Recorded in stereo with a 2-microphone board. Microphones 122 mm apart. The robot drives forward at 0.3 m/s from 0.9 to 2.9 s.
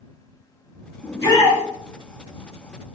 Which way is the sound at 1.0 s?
40° left (ahead or behind).